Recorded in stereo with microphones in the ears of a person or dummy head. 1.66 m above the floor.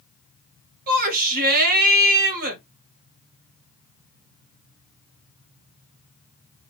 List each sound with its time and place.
0.9 s a shout: 50° right (ahead or behind), 2 m